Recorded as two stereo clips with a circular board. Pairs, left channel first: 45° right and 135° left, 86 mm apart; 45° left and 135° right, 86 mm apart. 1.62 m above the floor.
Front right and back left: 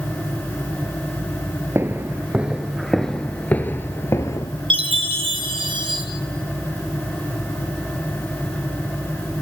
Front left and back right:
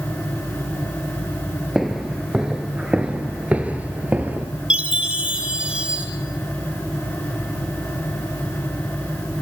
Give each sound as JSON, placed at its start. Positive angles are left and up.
{"t": 1.8, "sound": "footsteps", "azimuth_deg": 145, "distance_m": 1.8}
{"t": 4.7, "sound": "a chime", "azimuth_deg": 145, "distance_m": 3.0}